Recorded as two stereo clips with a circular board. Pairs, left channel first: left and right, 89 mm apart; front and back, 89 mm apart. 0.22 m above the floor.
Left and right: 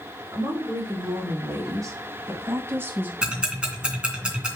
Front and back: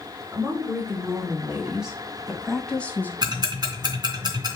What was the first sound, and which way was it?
A woman speaking, 125° right.